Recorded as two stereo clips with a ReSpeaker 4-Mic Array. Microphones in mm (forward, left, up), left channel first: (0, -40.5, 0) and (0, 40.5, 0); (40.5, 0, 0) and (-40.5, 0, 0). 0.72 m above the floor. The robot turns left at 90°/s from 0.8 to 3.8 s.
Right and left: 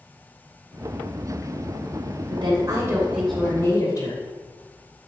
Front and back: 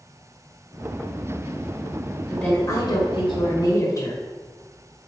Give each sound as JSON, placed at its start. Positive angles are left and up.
{"t": 2.3, "sound": "a woman speaking", "azimuth_deg": 85, "distance_m": 2.5}